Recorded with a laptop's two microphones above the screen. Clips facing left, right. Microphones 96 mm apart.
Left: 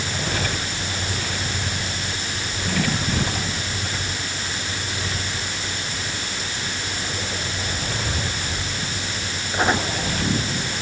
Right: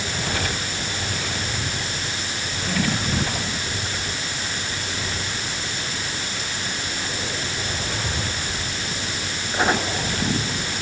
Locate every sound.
Only background noise.